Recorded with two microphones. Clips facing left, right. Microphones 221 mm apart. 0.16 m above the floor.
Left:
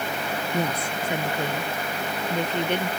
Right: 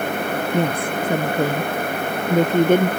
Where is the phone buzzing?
I don't hear a phone buzzing.